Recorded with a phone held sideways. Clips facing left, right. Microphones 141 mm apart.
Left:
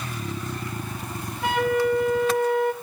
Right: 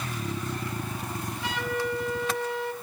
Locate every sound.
1.4 s a flute: 50° left (ahead or behind), 1.5 m